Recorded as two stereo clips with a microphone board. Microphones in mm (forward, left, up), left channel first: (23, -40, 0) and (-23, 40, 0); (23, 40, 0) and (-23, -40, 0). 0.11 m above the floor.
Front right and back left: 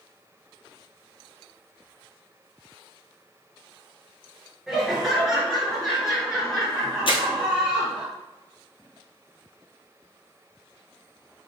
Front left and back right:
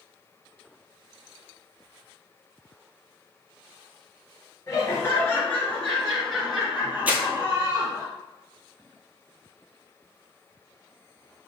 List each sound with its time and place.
4.7 s laughter: 35° left, 1.7 m; by 8.1 s 155° right, 1.7 m
7.1 s crumpling: 50° right, 0.9 m